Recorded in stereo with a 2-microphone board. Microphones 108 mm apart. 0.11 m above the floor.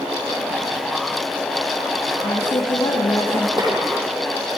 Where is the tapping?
45° right (ahead or behind), 5 m.